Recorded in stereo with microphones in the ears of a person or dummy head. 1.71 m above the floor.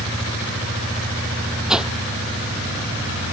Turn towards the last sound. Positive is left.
turn(degrees=-5)  # may be behind; listen again after turning